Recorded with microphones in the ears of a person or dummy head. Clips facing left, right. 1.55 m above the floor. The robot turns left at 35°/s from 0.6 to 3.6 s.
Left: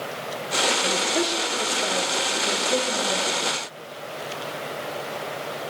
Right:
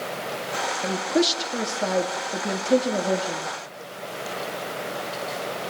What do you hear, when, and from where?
0.8 s a woman speaking: 35° right, 3 m; by 3.5 s 130° right, 3 m